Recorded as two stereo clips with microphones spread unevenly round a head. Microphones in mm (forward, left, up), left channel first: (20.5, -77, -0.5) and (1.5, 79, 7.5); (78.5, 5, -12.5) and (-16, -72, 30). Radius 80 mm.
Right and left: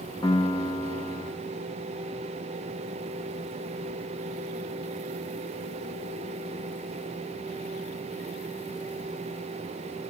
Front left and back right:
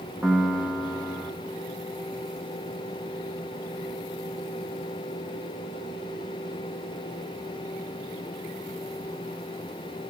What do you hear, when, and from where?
0.2 s a piano: 125° right, 0.9 m